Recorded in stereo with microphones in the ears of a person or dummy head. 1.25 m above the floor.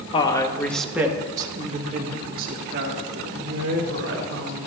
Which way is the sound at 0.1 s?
35° left (ahead or behind).